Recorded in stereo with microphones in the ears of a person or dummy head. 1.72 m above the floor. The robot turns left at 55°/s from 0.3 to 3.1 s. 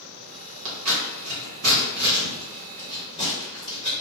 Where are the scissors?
80° right, 1.3 m; by 3.9 s 35° left (ahead or behind), 1.3 m.